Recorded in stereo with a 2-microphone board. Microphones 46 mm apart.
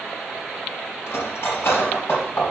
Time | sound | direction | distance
1.1 | cutlery clinking | 70° left (ahead or behind) | 3.5 m